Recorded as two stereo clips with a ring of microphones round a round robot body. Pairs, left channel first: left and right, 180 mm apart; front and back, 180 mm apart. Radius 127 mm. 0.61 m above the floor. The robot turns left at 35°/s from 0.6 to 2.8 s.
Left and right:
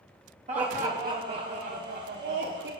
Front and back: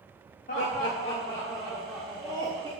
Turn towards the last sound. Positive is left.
turn(degrees=-125)